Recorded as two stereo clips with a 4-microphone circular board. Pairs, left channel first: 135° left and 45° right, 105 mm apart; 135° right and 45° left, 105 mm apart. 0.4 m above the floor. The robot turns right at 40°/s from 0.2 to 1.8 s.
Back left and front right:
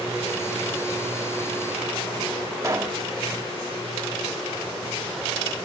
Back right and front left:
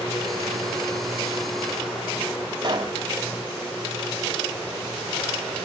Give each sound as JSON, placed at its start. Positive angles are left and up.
{"t": 2.6, "sound": "a pop", "azimuth_deg": 10, "distance_m": 1.2}